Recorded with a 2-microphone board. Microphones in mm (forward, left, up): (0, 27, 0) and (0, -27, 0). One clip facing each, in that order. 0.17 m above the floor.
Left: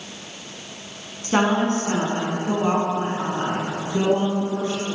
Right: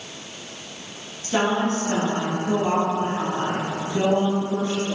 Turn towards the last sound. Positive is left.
turn(degrees=25)  # may be behind; listen again after turning